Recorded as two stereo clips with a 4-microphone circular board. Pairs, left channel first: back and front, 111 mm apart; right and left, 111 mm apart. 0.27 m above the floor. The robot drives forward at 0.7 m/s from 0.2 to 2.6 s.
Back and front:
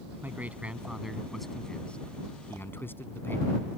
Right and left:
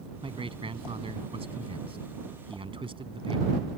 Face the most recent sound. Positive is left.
turn(degrees=110)